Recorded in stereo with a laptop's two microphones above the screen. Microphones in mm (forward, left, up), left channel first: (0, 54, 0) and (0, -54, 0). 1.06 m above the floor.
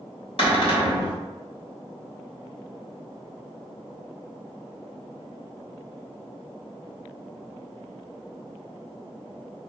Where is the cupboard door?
60° left (ahead or behind), 1.0 m.